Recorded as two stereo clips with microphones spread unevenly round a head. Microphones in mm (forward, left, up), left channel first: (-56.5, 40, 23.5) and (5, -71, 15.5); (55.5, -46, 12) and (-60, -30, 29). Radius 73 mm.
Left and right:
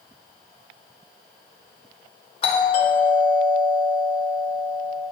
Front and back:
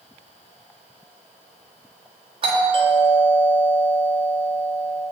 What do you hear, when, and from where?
2.4 s a doorbell: 140° left, 1.2 m